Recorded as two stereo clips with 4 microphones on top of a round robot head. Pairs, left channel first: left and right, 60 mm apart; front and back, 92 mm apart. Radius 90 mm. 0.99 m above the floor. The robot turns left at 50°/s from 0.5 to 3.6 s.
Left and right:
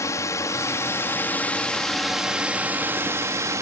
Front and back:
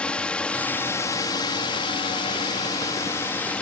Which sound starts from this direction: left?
A drone, at 0.0 s.